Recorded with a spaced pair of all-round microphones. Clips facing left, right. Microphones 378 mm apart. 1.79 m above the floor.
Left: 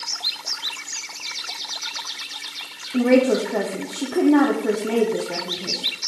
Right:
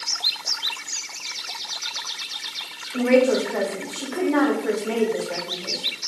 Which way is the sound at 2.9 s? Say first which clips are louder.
Left 1 dB; 50° left (ahead or behind).